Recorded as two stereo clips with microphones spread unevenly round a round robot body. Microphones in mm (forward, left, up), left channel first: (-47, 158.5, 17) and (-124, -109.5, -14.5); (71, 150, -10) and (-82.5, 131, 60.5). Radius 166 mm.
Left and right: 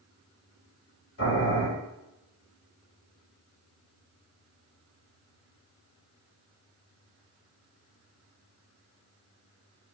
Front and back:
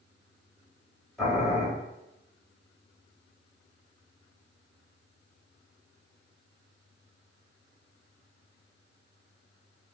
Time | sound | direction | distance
1.2 | boiling | 75° left | 2.0 m